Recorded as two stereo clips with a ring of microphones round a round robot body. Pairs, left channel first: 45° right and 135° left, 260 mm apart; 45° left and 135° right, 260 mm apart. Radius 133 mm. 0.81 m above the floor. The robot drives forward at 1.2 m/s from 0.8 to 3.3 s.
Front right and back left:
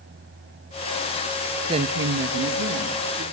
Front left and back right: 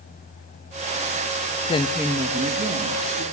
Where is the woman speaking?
80° left, 0.5 m; by 3.2 s 170° left, 1.9 m.